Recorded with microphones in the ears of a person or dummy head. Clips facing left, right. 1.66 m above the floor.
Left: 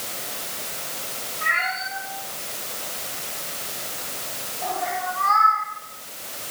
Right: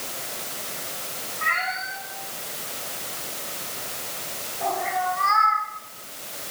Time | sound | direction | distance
1.4 | a cat meowing | 60° right (ahead or behind) | 9 m